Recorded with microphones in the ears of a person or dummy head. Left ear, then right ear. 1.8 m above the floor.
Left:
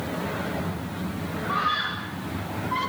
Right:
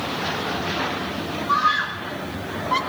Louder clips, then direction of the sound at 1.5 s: Right 5 dB; 85° right.